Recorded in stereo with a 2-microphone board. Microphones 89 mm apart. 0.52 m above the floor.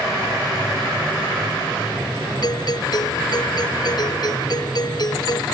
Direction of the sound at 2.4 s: 50° left (ahead or behind).